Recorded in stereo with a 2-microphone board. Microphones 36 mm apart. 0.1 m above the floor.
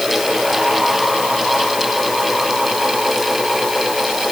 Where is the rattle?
I don't hear a rattle.